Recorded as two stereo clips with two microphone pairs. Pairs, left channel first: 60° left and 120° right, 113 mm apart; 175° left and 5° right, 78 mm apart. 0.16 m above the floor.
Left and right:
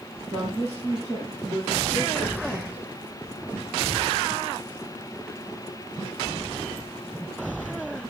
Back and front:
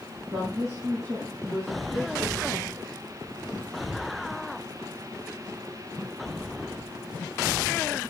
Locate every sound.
0.3 s a woman speaking: 55° right, 6.5 m; by 2.9 s 50° right, 8 m